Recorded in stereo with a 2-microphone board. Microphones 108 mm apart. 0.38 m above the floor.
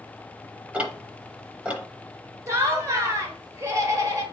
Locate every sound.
0.7 s ticking: 10° right (ahead or behind), 0.8 m
2.5 s laughter: 30° right (ahead or behind), 1.1 m